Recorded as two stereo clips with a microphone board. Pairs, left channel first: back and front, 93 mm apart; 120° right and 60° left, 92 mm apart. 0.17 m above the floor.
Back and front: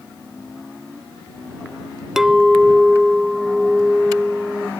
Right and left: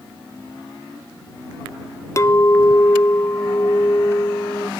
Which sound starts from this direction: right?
A clink, at 2.2 s.